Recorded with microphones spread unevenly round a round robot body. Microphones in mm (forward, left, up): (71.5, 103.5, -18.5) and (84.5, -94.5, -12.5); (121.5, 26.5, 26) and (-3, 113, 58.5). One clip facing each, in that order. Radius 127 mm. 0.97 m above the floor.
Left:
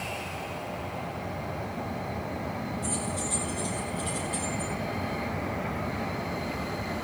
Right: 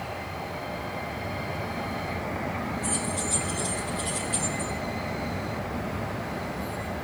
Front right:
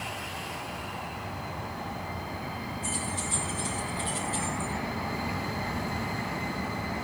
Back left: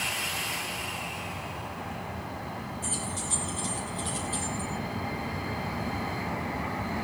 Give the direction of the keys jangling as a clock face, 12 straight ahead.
6 o'clock.